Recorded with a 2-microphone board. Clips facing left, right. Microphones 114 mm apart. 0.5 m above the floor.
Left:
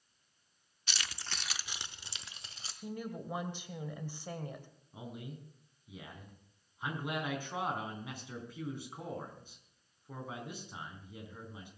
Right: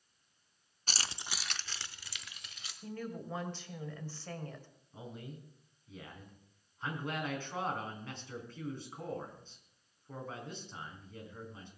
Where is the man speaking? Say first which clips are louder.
Left 1 dB; 10° left (ahead or behind), 4 m.